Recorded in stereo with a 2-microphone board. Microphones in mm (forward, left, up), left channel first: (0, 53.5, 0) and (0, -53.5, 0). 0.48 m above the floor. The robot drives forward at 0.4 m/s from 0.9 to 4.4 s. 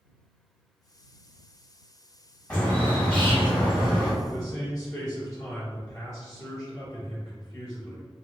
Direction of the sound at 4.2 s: 20° left (ahead or behind).